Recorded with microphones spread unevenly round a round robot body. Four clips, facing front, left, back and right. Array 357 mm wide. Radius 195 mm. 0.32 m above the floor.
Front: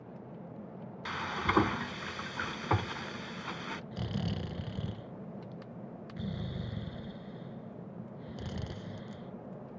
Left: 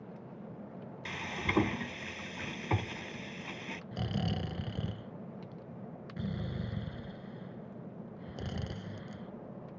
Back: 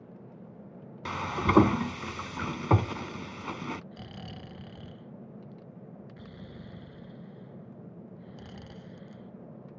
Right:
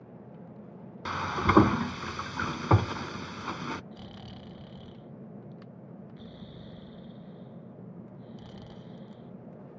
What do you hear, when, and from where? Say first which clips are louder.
1.1 s frying: right 11 dB, back 5 dB; 140° right
3.9 s snoring: left 9 dB, front 7 dB; 60° left